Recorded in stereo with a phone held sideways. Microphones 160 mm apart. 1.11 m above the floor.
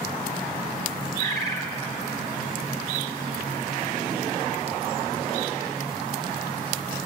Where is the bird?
25° left (ahead or behind), 1.3 m.